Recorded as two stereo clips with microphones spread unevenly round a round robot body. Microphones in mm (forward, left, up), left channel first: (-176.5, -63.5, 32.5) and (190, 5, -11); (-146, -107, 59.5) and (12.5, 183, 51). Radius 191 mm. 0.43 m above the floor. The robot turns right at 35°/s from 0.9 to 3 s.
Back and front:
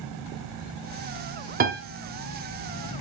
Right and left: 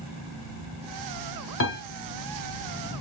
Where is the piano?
55° right, 1.8 m; by 1.8 s 50° right, 1.8 m.